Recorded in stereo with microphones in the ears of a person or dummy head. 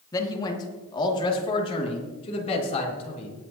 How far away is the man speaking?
About 1.8 m.